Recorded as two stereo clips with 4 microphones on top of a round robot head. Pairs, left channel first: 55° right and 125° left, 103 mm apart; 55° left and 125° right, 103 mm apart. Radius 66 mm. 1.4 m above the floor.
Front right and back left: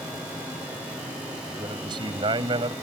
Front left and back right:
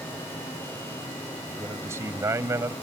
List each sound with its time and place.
1.5 s a man speaking: 170° left